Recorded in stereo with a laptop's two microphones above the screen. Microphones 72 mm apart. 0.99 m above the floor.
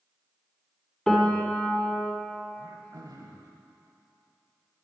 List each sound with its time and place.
1.1 s a piano: 10° left (ahead or behind), 1.2 m
2.6 s throat clearing: 55° right (ahead or behind), 1.2 m